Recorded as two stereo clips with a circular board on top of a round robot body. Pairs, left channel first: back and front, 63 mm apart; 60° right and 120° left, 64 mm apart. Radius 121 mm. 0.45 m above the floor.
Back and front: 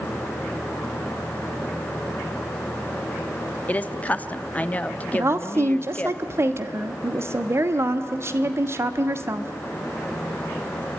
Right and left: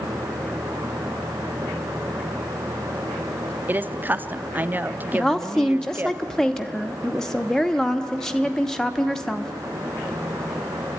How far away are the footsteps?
No footsteps in this recording.